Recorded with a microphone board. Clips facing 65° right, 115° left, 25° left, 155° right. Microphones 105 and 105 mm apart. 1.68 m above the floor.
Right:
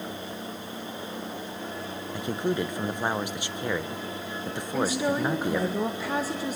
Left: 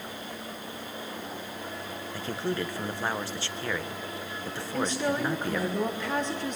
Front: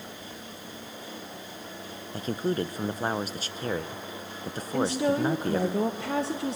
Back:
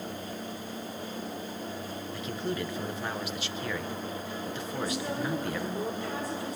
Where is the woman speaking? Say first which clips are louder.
Right 2 dB, front 9 dB; 15° left, 1.5 m.